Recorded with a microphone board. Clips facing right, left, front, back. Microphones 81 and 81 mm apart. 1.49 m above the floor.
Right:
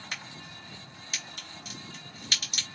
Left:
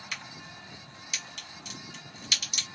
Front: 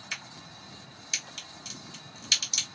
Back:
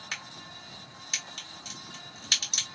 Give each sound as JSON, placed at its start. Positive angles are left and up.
{"t": 0.1, "sound": "a crack", "azimuth_deg": -135, "distance_m": 1.4}